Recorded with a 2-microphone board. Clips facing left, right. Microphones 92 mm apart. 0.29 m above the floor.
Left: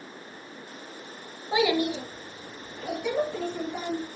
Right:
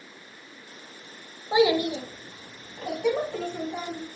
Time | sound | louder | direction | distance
1.5 | a child speaking | right 3 dB | 15° right (ahead or behind) | 0.6 m